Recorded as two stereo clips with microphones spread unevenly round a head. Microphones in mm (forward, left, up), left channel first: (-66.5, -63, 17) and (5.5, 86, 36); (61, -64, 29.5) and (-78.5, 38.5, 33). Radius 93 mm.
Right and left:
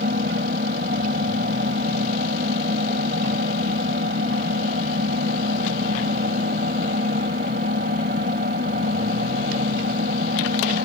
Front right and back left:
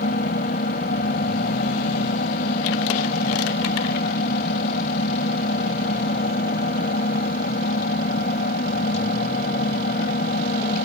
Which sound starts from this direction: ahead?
An engine running, at 0.0 s.